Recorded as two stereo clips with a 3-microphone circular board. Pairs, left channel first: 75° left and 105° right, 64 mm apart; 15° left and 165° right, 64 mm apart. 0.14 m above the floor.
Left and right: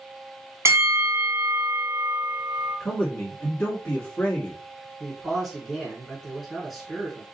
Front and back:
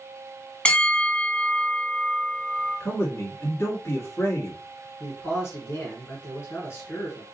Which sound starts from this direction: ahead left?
A man speaking, at 2.8 s.